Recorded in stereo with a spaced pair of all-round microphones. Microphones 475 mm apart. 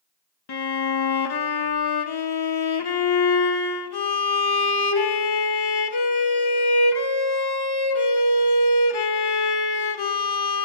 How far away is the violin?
About 0.5 m.